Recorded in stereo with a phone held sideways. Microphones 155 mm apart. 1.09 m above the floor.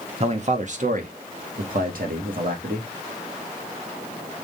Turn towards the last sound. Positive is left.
turn(degrees=-70)  # may be behind; listen again after turning